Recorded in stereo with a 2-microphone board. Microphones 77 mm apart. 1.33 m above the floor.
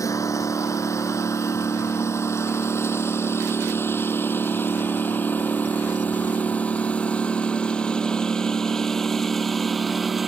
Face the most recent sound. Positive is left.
turn(degrees=0)  # may be behind; listen again after turning